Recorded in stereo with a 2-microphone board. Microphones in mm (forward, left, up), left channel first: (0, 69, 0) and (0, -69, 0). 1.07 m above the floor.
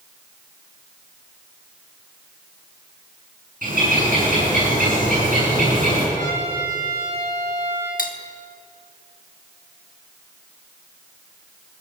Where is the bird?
80° right, 7.5 m.